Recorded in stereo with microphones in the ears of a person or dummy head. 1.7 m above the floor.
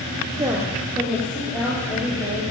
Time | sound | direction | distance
0.4 | a woman speaking | 20° right (ahead or behind) | 1.1 m